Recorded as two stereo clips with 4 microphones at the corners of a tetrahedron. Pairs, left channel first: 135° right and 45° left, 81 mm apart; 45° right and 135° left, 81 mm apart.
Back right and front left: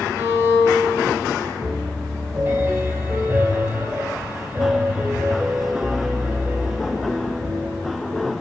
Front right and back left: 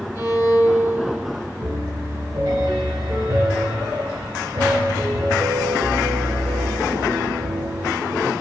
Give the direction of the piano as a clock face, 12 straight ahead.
9 o'clock.